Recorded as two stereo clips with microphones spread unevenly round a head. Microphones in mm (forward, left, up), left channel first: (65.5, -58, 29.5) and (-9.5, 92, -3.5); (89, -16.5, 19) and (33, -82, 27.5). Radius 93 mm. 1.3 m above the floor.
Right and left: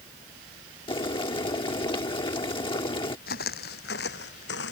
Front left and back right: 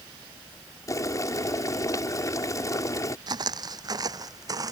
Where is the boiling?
Straight ahead.